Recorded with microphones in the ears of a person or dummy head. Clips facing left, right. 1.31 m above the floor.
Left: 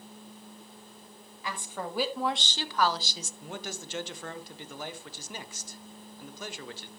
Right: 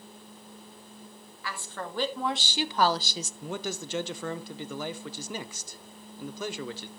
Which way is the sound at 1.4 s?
15° left (ahead or behind).